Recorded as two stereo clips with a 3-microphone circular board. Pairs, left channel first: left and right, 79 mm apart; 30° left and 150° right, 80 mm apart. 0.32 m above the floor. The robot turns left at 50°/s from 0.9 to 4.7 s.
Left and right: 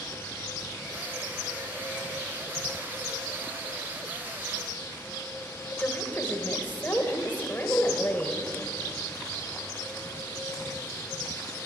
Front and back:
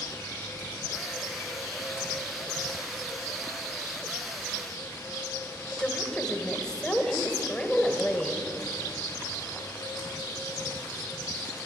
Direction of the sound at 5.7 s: 95° left.